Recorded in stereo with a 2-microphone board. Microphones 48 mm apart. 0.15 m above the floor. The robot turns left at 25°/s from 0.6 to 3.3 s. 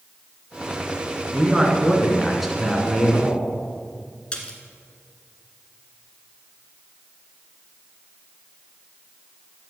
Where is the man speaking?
150° right, 2 m; by 3.5 s 160° left, 2 m.